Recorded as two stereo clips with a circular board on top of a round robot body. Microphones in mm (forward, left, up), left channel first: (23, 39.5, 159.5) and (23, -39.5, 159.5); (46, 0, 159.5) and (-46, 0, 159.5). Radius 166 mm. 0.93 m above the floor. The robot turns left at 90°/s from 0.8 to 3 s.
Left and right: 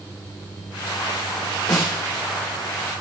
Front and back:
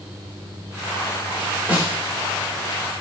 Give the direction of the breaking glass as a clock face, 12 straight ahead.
No breaking glass in this recording.